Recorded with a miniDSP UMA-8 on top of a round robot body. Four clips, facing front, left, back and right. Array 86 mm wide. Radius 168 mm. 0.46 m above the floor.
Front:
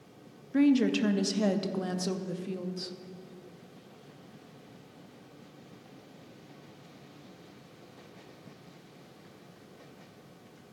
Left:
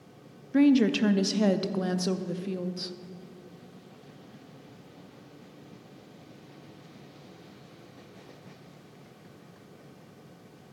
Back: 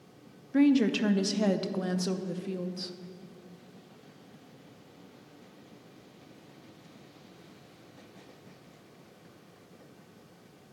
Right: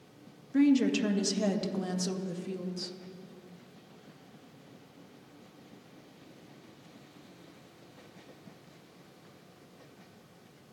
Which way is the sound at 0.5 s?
95° left.